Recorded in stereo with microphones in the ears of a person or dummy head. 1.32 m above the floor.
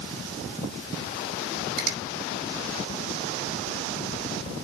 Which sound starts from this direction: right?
A finger snap, at 1.8 s.